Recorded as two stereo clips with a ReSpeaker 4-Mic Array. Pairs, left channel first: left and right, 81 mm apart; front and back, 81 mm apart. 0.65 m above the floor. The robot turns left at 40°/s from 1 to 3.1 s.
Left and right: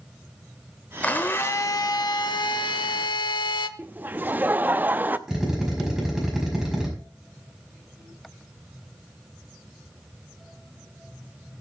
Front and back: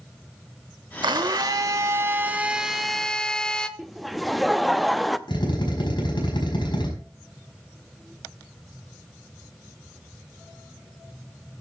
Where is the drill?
5° right, 5 m.